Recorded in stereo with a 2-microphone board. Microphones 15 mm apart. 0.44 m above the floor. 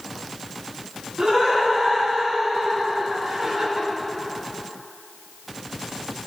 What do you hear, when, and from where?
1.2 s laughter: 65° right (ahead or behind), 3.5 m; by 3.9 s 30° right (ahead or behind), 3 m